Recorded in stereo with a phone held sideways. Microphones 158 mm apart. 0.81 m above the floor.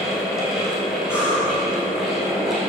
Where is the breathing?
15° left (ahead or behind), 2.5 m.